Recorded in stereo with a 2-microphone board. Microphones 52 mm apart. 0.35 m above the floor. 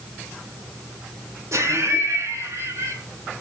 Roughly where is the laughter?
Right.